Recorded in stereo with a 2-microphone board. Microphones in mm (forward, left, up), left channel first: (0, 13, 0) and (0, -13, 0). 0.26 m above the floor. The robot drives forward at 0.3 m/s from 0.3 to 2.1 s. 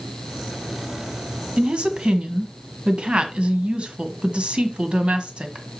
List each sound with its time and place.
1.6 s a woman speaking: 50° right (ahead or behind), 1.6 m